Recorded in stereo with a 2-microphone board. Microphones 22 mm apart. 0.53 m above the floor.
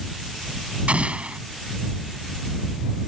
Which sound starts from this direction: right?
An explosion, at 0.9 s.